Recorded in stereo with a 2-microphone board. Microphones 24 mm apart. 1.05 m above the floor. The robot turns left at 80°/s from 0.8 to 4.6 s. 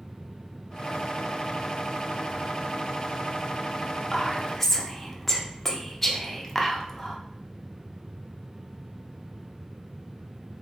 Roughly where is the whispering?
Left.